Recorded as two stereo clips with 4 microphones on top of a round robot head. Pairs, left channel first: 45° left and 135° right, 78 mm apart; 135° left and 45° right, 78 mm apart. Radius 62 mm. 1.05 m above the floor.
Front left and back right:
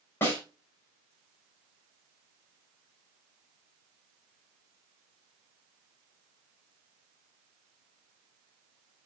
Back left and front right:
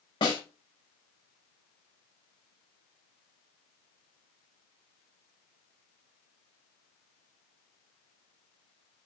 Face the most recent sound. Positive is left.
turn(degrees=105)